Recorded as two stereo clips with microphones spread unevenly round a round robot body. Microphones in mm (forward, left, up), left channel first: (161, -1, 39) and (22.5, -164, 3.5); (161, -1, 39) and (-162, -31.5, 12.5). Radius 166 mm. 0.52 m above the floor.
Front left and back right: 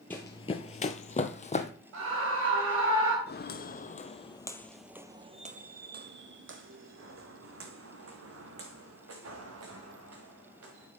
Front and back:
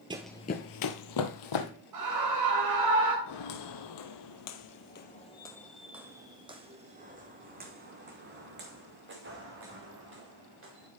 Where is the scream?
150° right, 3 m.